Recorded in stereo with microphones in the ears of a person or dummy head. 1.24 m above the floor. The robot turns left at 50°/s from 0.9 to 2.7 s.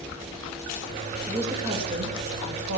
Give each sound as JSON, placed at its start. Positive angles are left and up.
{"t": 1.3, "sound": "a woman speaking", "azimuth_deg": -10, "distance_m": 2.0}